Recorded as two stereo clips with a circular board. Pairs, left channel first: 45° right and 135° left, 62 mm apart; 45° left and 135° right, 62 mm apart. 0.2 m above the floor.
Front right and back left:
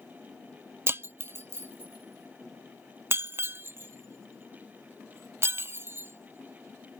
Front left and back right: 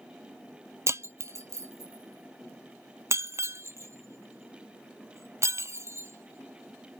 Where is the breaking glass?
175° right.